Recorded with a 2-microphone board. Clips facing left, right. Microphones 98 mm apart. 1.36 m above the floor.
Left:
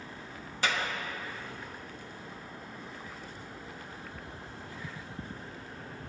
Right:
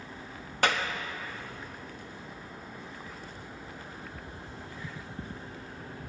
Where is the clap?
65° right (ahead or behind), 0.9 m.